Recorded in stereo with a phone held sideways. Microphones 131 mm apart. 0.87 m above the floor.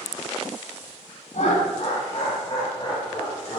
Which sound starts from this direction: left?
Laughter, at 1.3 s.